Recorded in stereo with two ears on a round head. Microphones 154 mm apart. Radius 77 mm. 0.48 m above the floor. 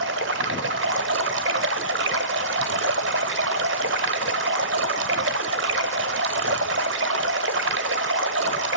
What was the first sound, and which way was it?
Running water, 75° right (ahead or behind).